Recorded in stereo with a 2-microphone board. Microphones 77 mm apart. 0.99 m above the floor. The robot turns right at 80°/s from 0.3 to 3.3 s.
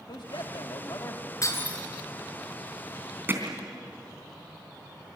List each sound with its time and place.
0.1 s a man speaking: 75° left, 2.0 m; by 1.2 s 155° left, 2.0 m
1.4 s breaking glass: 135° left, 5.5 m; by 1.8 s 170° left, 5.5 m
3.3 s hammering: 30° right (ahead or behind), 3.5 m